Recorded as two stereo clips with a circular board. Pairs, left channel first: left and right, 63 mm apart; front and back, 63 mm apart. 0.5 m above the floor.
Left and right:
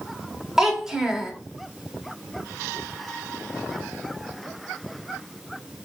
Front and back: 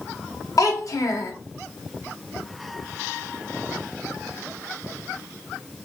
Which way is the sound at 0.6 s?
5° right.